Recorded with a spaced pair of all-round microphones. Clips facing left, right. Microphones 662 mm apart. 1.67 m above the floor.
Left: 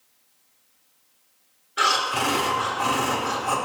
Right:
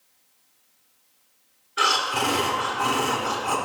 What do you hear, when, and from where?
1.8 s breathing: 5° left (ahead or behind), 1.4 m